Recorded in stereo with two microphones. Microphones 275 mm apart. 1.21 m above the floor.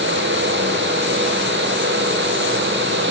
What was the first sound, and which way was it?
Only background noise.